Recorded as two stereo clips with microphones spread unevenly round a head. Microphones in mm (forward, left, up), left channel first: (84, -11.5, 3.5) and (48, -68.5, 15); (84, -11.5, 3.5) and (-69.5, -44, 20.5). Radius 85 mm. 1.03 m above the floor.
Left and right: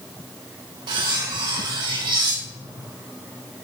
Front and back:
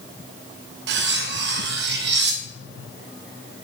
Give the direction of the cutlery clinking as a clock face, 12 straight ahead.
5 o'clock.